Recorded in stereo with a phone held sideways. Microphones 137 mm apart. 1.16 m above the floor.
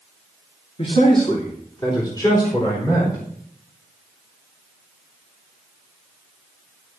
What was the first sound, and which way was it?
A man speaking, 50° left (ahead or behind).